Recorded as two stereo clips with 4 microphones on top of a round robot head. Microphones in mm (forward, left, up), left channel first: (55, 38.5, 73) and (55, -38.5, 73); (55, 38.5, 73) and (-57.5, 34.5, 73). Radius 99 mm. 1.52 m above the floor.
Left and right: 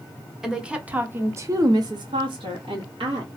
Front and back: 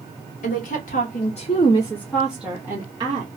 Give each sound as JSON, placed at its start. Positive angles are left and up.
{"t": 0.4, "sound": "a woman speaking", "azimuth_deg": -5, "distance_m": 0.9}